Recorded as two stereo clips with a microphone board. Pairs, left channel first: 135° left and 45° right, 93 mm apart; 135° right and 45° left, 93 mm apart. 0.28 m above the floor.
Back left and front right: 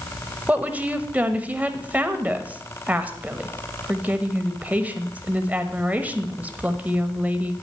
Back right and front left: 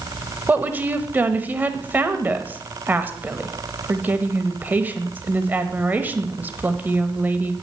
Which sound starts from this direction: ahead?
A woman speaking, at 0.5 s.